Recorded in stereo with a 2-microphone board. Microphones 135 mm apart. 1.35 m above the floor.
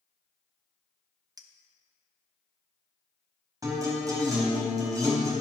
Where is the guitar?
25° right (ahead or behind), 4 m.